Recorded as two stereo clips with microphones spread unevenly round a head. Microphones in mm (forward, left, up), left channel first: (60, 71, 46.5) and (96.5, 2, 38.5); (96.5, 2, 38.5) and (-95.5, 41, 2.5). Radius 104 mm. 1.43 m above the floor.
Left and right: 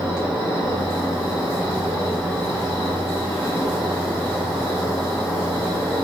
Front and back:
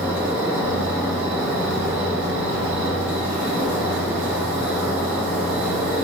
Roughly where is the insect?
Right.